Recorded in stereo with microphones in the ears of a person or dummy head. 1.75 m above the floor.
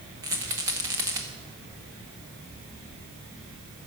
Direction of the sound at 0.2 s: 20° right (ahead or behind).